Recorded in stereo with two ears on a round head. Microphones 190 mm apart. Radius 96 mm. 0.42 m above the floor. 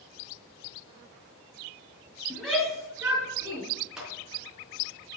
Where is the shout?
5° left (ahead or behind), 5 m; by 3.6 s 15° right (ahead or behind), 5.5 m.